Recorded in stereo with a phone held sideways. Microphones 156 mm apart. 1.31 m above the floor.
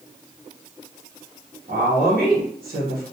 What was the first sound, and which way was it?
A woman speaking, 70° right (ahead or behind).